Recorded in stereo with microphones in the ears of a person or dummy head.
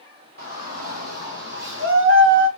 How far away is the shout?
About 2.5 m.